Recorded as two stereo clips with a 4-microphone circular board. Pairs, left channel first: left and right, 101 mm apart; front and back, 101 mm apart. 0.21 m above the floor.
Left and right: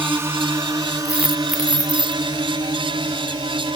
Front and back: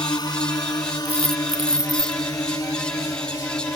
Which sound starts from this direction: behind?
A dropped coin, at 1.1 s.